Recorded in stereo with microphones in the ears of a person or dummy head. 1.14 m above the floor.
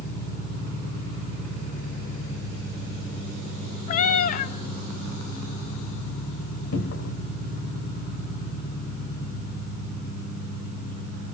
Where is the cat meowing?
40° left (ahead or behind), 0.6 m.